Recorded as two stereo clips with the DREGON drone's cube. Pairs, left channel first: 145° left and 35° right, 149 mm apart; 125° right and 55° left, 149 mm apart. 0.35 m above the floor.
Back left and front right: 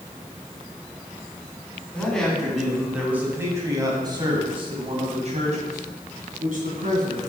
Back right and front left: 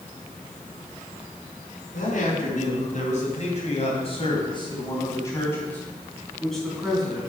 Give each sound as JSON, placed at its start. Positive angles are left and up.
{"t": 1.9, "sound": "a man speaking", "azimuth_deg": -130, "distance_m": 3.0}